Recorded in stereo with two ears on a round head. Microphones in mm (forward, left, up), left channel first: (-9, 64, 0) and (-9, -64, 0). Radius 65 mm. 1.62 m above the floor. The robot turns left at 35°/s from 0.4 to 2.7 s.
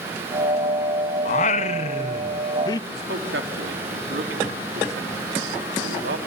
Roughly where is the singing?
Left.